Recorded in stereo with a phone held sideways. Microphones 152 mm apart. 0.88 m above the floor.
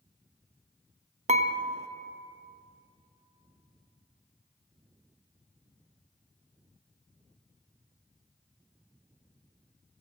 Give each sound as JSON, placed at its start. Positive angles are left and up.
{"t": 1.3, "sound": "dishes clattering", "side_deg": -50, "distance_m": 0.5}